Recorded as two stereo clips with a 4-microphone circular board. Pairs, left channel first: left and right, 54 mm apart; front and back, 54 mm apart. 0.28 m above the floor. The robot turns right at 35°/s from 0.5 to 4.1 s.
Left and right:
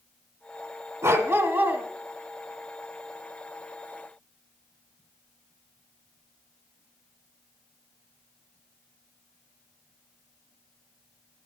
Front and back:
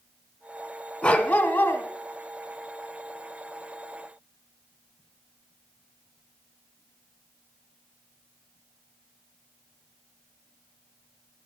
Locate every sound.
1.0 s a dog barking: 70° right, 1.2 m; by 1.8 s 45° right, 1.2 m